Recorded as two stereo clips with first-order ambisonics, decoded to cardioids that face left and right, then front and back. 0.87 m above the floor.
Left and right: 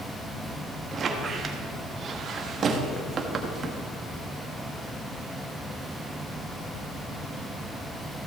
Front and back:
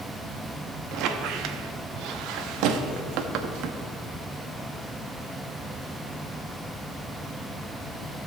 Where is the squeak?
150° right, 1.0 m.